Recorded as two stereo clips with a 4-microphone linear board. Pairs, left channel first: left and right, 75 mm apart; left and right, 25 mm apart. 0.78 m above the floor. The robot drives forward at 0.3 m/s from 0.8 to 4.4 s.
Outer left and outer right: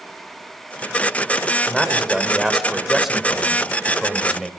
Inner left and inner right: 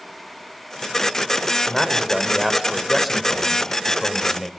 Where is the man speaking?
5° right (ahead or behind), 3.5 m.